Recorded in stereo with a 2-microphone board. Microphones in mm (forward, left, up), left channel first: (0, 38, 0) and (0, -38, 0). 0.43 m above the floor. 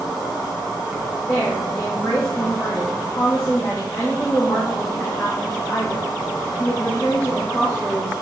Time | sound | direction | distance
0.0 | an insect | 5° right (ahead or behind) | 4.5 m
1.3 | a woman speaking | 25° left (ahead or behind) | 3 m